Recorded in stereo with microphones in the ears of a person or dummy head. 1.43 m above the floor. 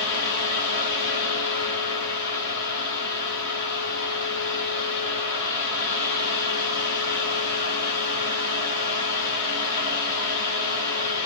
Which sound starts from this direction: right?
A fan, at 0.0 s.